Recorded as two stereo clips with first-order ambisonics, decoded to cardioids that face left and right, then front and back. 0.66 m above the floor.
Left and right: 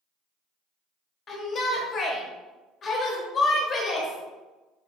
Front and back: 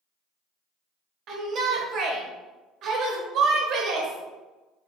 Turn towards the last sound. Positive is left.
turn(degrees=145)